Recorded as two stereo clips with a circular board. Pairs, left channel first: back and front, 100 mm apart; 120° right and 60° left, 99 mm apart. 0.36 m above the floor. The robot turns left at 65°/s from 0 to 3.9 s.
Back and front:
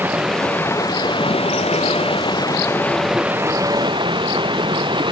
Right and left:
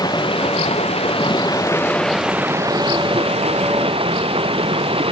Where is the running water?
70° right; by 5.1 s 35° left.